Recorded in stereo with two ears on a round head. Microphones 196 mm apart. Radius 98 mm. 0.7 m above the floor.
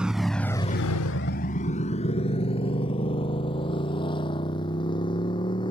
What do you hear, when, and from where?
0.0 s a motorcycle: 5° right (ahead or behind); by 5.7 s 20° left (ahead or behind)